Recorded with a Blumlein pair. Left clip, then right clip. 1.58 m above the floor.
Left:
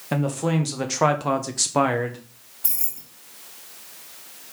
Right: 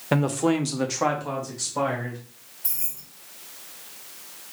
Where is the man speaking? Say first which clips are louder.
Right 2 dB; 15° right, 0.9 m; by 2.2 s 60° left, 0.9 m.